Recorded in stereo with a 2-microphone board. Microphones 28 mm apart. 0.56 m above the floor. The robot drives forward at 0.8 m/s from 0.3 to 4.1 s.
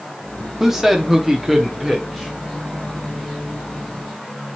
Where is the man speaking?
5° right (ahead or behind), 0.7 m.